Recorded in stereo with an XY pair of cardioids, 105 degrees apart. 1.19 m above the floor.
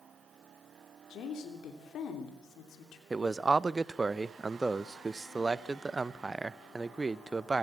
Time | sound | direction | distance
1.1 | a woman speaking | 70° left | 3 m
3.1 | a man speaking | 20° right | 0.7 m